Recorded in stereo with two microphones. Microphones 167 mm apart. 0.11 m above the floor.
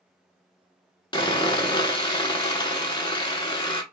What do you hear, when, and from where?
1.1 s sawing: 30° left (ahead or behind), 0.7 m